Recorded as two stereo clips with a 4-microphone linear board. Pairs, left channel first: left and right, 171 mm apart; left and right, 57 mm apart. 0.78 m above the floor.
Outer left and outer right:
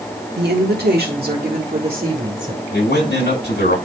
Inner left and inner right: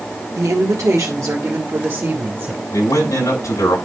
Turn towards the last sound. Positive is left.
turn(degrees=85)